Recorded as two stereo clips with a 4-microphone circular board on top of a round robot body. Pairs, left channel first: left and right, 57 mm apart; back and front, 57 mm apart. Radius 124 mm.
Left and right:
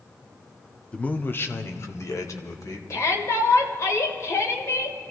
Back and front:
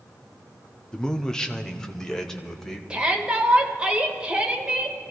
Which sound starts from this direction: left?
A shout, at 2.9 s.